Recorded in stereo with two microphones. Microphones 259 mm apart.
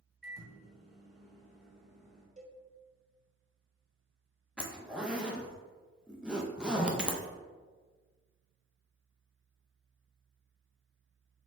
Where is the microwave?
Centre (ahead or behind), 1.0 m.